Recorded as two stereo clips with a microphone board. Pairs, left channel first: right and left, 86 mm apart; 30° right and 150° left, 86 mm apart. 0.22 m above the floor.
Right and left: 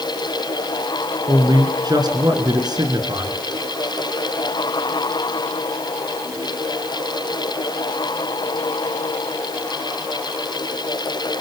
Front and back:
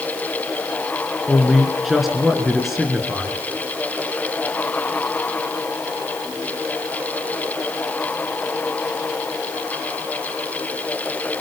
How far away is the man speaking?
About 3.5 m.